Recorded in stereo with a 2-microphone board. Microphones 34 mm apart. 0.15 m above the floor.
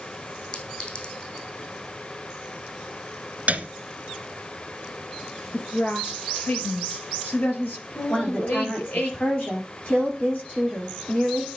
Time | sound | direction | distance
0.5 | a clink | 30° left (ahead or behind) | 4.5 m
3.5 | a piano | 50° right (ahead or behind) | 1.4 m
5.5 | a woman speaking | 65° left (ahead or behind) | 4 m
8.1 | a woman speaking | 55° left (ahead or behind) | 8 m